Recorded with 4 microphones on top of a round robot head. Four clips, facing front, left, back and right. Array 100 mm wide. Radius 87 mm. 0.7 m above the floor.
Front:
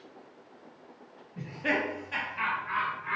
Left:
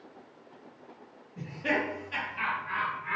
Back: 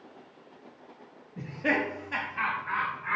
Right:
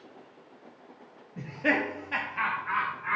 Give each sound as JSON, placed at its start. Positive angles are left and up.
{"t": 1.4, "sound": "laughter", "azimuth_deg": -95, "distance_m": 1.2}